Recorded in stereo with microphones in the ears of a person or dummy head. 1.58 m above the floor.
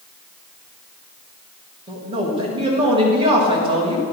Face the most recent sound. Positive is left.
turn(degrees=-30)  # may be behind; listen again after turning